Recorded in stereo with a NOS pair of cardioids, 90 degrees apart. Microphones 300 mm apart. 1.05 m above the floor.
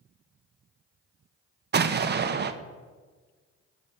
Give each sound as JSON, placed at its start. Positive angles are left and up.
{"t": 1.7, "sound": "an explosion", "azimuth_deg": -35, "distance_m": 0.6}